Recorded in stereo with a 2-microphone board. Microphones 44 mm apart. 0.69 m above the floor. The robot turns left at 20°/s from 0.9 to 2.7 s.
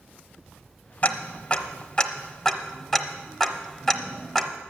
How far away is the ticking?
About 0.8 m.